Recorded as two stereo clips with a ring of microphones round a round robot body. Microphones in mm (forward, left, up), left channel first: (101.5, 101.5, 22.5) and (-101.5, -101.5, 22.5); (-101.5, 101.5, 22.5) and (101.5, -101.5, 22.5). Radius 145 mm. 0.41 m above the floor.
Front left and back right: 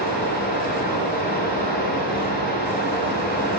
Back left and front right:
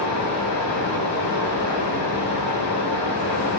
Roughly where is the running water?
Left.